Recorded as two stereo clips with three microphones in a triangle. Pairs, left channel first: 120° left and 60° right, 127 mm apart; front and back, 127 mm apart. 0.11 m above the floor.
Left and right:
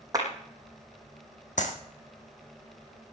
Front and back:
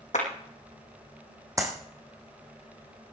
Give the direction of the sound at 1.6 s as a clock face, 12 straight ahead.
8 o'clock.